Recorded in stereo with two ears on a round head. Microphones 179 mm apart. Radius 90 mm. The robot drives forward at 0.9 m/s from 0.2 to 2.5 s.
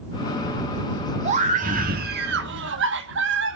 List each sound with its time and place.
1.2 s a scream: 35° right (ahead or behind), 2 m; by 3.6 s 65° right (ahead or behind), 1.4 m